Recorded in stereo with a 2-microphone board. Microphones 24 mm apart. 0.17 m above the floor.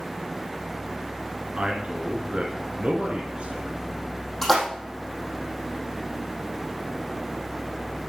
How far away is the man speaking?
About 2.5 m.